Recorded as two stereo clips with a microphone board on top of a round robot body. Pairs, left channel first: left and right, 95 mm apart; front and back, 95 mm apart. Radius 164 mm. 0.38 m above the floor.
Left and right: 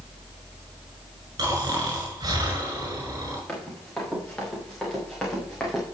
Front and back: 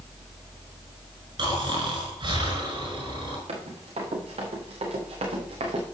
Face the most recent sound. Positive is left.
turn(degrees=175)